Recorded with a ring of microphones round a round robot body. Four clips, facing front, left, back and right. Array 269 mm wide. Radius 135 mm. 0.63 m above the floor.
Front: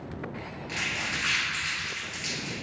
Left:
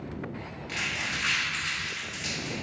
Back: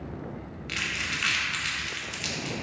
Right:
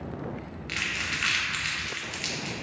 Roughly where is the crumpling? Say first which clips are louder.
Even, even; behind right.